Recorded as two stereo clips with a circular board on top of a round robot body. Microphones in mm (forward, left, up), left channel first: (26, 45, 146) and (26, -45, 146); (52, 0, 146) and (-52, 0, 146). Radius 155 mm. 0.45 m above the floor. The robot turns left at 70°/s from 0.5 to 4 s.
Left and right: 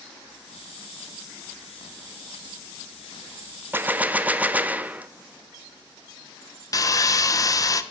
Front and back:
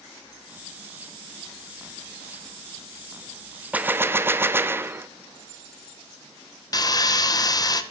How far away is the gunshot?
About 0.6 m.